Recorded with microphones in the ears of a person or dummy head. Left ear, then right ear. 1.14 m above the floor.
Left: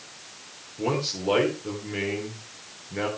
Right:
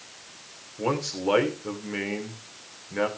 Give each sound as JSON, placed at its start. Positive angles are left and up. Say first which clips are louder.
{"t": 0.8, "sound": "a man speaking", "louder": "even", "side_deg": -40, "distance_m": 3.0}